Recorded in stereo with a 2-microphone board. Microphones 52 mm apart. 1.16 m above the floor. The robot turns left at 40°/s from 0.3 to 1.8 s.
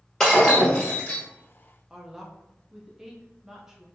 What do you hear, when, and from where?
0.2 s breaking glass: 170° left, 1.7 m; by 1.2 s 135° left, 1.7 m
1.9 s a woman speaking: 10° right (ahead or behind), 0.6 m